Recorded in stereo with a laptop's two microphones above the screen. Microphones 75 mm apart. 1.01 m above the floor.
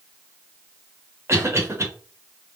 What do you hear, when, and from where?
1.3 s a cough: 35° right (ahead or behind), 1.1 m